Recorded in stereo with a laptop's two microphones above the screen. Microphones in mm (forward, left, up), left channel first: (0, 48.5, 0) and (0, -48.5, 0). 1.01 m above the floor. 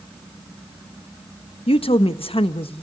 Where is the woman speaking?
75° left (ahead or behind), 0.9 m.